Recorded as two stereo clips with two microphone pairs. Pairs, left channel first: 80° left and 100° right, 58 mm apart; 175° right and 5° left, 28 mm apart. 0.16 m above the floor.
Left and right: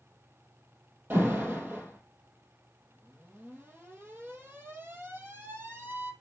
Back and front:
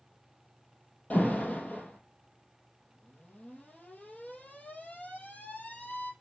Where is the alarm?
155° right, 3.5 m.